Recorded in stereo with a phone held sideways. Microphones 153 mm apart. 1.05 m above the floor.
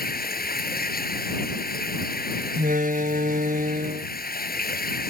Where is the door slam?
60° right (ahead or behind).